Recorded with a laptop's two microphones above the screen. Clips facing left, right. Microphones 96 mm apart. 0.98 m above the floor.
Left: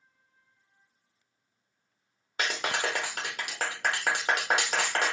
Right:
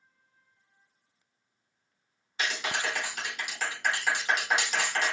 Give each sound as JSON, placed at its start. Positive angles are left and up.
{"t": 2.4, "sound": "a clap", "side_deg": 50, "distance_m": 1.1}